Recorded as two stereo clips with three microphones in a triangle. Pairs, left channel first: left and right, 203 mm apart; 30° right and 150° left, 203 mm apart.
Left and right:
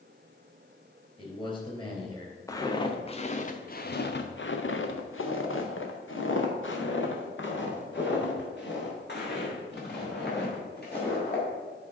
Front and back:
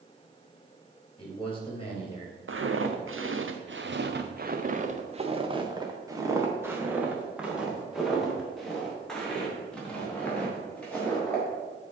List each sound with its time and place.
1.2 s a man speaking: 25° left, 3 m
2.5 s footsteps: 165° left, 1.3 m; by 11.4 s 50° left, 4.5 m